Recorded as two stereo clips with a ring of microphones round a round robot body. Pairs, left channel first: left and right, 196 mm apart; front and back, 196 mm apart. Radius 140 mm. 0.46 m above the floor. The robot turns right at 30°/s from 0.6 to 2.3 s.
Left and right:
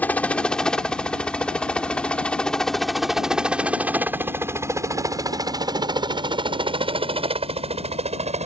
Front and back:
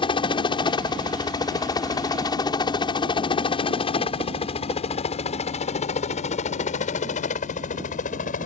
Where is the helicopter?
20° left; by 8.5 s 45° right.